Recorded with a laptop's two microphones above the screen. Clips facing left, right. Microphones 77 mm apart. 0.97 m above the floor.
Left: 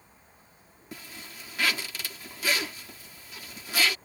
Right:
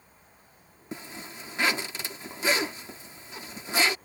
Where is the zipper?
30° right (ahead or behind).